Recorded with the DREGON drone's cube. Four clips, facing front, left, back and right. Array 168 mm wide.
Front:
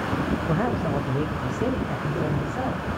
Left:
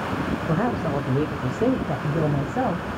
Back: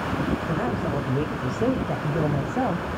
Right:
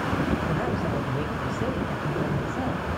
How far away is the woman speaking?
About 1.2 m.